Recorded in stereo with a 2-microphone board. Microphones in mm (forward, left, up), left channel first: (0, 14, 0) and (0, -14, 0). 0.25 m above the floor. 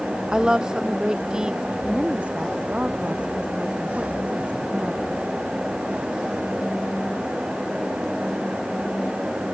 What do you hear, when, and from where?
0.3 s a woman speaking: 25° right (ahead or behind)
1.9 s a woman speaking: 45° right (ahead or behind)